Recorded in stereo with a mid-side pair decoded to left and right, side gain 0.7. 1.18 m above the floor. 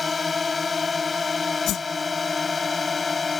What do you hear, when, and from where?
0.0 s a drone: 25° left
1.7 s a whoosh: 50° left